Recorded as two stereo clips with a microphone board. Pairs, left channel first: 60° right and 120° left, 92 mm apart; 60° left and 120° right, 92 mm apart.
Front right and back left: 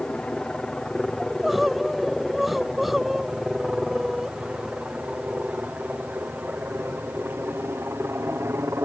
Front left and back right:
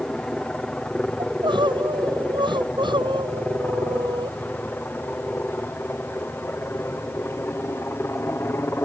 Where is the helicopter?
5° left; by 8.8 s 90° left.